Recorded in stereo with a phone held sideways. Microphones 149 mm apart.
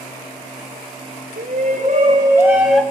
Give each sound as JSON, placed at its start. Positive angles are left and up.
{"t": 1.4, "sound": "a shout", "side_deg": -70, "distance_m": 1.8}